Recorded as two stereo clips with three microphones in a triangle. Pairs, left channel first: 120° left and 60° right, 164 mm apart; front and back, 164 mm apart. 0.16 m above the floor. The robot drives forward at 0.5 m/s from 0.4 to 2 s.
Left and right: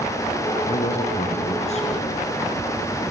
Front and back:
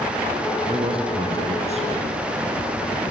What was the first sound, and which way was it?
A man speaking, 140° left.